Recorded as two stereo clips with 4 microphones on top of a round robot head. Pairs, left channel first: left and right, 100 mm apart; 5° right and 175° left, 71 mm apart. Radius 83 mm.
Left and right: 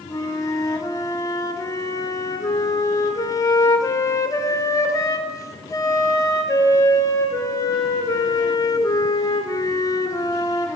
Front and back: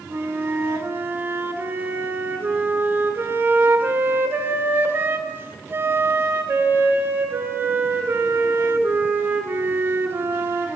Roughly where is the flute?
Behind left.